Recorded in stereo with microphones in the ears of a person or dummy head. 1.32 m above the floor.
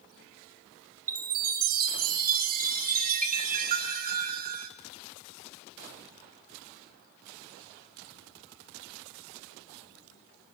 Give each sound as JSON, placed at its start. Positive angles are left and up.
{"t": 1.1, "sound": "a chime", "side_deg": -45, "distance_m": 3.0}